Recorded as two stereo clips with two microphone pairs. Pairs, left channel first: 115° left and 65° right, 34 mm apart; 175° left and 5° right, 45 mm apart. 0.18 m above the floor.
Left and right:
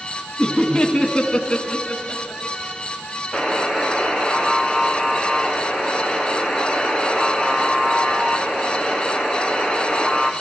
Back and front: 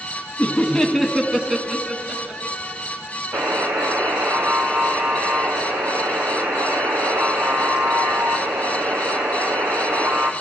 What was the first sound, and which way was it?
Laughter, 165° right.